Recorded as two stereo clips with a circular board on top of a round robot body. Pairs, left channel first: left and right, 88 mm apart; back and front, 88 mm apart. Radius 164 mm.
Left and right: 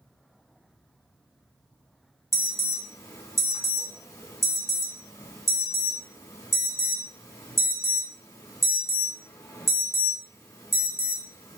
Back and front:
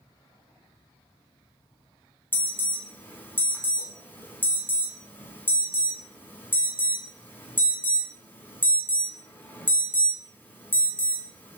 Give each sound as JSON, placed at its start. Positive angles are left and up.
{"t": 2.3, "sound": "an alarm", "azimuth_deg": 125, "distance_m": 2.0}